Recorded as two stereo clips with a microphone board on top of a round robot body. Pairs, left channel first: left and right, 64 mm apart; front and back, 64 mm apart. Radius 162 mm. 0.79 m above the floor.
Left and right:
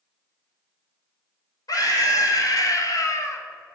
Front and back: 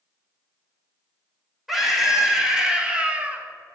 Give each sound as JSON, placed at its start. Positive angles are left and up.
{"t": 1.7, "sound": "a scream", "azimuth_deg": 90, "distance_m": 2.5}